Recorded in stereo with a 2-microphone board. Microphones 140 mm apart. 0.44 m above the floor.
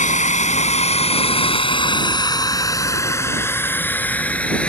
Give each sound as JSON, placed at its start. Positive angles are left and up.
{"t": 0.0, "sound": "a drone", "side_deg": 70}